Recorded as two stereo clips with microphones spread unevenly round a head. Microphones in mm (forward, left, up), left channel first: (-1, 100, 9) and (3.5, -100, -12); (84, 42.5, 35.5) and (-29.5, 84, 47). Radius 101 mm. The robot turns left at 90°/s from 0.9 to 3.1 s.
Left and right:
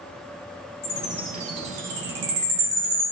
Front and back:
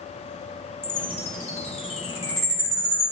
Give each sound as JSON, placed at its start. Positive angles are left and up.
{"t": 0.8, "sound": "a chime", "azimuth_deg": 30, "distance_m": 1.5}